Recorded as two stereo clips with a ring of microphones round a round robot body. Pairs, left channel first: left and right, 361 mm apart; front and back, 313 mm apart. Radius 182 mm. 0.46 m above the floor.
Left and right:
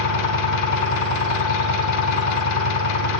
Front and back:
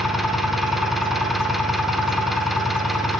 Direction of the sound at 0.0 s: 90° left.